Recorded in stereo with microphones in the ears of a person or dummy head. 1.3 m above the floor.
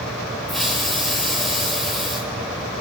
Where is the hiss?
5° right (ahead or behind), 5 m.